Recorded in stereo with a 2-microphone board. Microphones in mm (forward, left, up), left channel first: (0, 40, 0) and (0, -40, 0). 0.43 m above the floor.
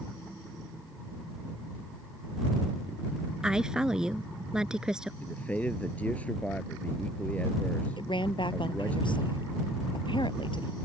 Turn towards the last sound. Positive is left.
turn(degrees=75)  # may be behind; listen again after turning